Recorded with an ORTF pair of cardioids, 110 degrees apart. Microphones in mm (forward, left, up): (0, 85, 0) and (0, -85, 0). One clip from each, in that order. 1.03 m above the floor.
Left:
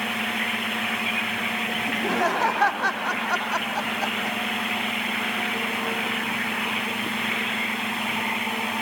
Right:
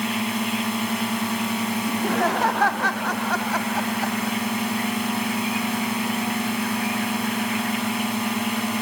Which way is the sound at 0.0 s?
70° right.